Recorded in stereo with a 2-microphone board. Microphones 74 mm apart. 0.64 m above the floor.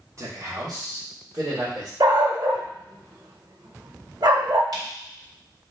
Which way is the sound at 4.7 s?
65° right (ahead or behind).